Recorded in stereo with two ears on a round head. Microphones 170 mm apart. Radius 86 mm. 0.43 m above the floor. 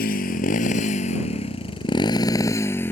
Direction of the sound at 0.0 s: 50° left (ahead or behind).